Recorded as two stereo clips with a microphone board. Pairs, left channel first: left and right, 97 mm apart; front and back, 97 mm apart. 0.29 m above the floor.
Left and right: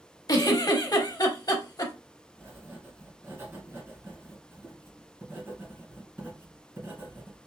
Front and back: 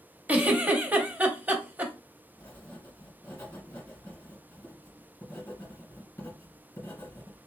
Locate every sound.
0.3 s a giggle: 115° left, 0.7 m
2.4 s writing: 45° right, 1.5 m